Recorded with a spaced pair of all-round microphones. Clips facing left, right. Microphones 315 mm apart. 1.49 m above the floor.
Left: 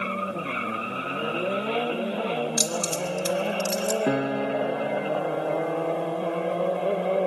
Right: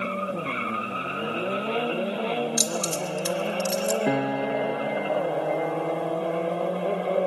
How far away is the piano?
About 0.5 m.